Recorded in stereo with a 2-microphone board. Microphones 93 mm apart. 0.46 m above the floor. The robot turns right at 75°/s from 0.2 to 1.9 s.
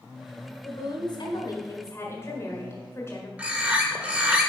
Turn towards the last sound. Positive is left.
turn(degrees=-15)  # may be behind; listen again after turning